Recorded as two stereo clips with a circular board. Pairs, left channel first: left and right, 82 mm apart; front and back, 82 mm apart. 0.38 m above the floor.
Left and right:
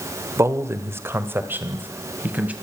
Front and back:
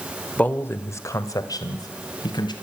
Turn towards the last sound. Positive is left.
turn(degrees=-20)